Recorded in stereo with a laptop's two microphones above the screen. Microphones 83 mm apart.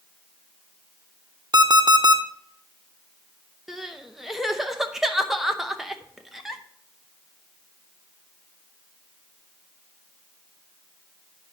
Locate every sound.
1.5 s an alarm clock: 55° right (ahead or behind), 1.0 m
3.7 s crying: 5° right (ahead or behind), 0.7 m